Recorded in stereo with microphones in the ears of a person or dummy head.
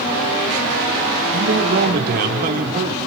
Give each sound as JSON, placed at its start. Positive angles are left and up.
{"t": 1.3, "sound": "a man speaking", "side_deg": -60, "distance_m": 3.5}